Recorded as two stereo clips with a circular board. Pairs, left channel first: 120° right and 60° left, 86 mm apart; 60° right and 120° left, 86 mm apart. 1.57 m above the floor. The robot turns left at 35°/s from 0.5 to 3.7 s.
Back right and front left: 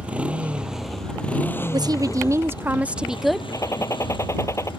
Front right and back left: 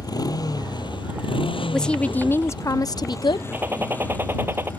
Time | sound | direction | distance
0.0 | a motorcycle | 15° right | ?
1.7 | a woman speaking | 25° left | ?
3.5 | a gunshot | 170° right | ?